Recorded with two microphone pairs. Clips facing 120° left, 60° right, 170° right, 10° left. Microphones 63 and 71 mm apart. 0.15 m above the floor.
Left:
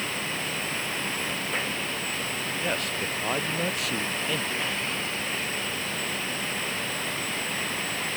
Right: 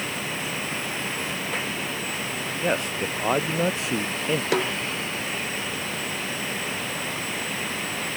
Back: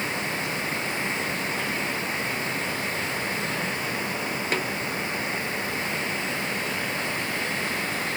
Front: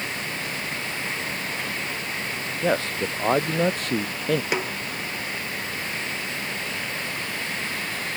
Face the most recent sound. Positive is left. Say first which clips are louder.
# right 7 dB, front 1 dB
turn(degrees=-70)